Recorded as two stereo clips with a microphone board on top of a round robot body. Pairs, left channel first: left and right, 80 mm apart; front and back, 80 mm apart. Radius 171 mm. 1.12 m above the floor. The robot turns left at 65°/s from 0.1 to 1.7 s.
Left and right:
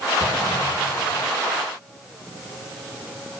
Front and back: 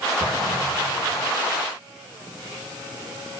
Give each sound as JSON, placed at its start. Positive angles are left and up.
{"t": 0.2, "sound": "an explosion", "azimuth_deg": -145, "distance_m": 6.5}